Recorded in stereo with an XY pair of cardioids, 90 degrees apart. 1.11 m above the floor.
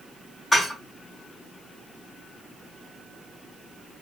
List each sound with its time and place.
0.5 s dishes clattering: 25° left, 1.9 m